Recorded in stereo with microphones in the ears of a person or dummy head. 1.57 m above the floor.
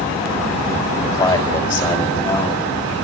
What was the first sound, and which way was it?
A man speaking, 30° left (ahead or behind).